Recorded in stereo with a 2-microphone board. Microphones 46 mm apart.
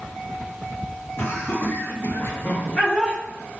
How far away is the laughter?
About 1.1 m.